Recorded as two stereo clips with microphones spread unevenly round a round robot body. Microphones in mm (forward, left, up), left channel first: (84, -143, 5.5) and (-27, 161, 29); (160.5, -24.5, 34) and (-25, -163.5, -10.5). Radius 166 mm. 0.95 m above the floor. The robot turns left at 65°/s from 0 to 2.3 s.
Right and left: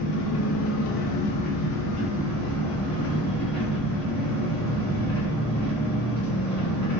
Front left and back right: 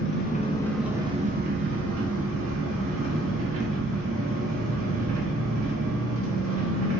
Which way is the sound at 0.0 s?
5° right.